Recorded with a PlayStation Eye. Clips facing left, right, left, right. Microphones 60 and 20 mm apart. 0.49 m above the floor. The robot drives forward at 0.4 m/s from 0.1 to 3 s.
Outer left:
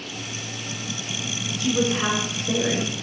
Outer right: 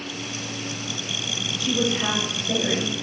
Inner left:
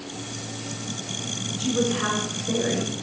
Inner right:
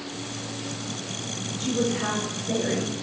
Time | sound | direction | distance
1.6 | a woman speaking | 80° left | 5 m